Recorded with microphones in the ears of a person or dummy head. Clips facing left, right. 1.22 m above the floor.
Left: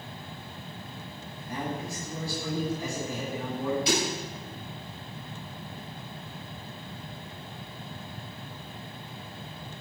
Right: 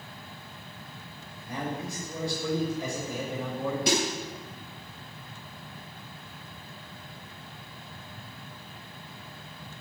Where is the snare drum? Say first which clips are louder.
Right 3 dB; 50° right (ahead or behind), 8 m.